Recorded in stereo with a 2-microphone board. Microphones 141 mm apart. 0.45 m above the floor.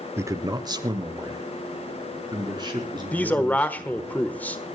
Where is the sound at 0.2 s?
15° right (ahead or behind), 0.7 m; by 4.1 s 30° right (ahead or behind), 6.5 m.